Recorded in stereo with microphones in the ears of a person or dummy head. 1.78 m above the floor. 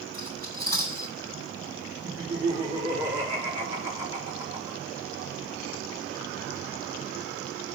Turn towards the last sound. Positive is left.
turn(degrees=-25)  # may be behind; listen again after turning